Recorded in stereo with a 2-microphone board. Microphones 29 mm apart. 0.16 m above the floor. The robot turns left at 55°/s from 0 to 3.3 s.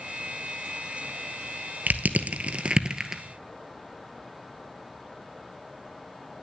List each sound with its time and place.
1.9 s crushing: 75° right (ahead or behind), 0.8 m; by 3.2 s 10° right (ahead or behind), 0.8 m